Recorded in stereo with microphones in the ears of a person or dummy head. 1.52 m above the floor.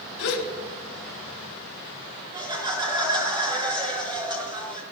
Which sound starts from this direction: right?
Laughter, at 2.3 s.